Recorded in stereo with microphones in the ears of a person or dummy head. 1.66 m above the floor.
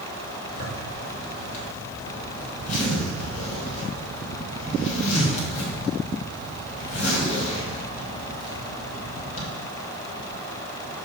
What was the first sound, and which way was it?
A zipper, 45° left (ahead or behind).